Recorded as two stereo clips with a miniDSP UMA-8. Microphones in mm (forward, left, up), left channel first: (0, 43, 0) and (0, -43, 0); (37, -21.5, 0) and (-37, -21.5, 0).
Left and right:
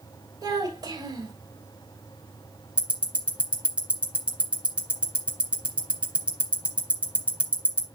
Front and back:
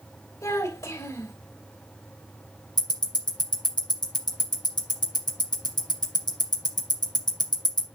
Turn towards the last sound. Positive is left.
turn(degrees=-15)